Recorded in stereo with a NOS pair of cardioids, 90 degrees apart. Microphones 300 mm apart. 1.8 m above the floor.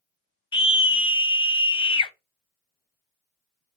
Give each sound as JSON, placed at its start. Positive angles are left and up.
{"t": 0.5, "sound": "a scream", "azimuth_deg": 20, "distance_m": 0.8}